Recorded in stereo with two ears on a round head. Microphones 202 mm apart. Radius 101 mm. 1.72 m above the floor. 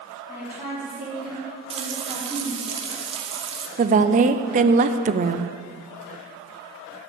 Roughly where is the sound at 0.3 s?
Centre.